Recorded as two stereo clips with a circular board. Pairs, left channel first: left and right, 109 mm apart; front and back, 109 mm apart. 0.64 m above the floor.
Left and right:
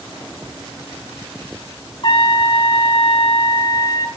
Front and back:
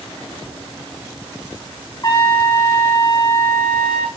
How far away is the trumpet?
About 3.5 m.